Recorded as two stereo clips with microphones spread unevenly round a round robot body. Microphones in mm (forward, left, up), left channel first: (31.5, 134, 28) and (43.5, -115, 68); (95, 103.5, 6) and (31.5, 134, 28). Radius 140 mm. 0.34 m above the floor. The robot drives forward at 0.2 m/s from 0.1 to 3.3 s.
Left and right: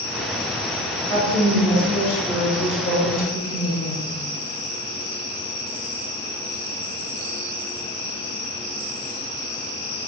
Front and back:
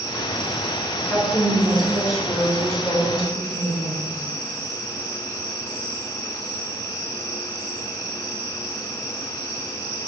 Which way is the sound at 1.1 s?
100° left.